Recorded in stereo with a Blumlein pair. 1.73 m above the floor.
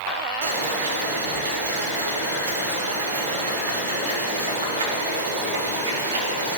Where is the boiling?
55° right, 3.5 m.